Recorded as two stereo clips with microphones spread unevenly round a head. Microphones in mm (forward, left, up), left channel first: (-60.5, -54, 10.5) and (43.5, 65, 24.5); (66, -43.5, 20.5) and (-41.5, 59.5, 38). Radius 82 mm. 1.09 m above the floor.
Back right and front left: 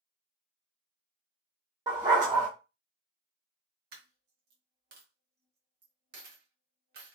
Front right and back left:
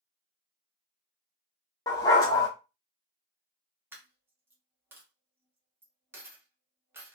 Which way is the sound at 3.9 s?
65° left.